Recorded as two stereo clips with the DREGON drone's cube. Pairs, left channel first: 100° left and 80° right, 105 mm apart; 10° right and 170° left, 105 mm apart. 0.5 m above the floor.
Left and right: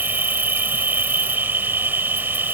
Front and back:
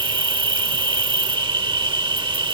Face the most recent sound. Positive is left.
turn(degrees=-150)